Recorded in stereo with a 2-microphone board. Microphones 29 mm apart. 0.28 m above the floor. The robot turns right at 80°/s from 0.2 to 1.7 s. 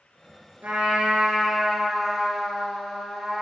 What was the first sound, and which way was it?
A trumpet, 85° right.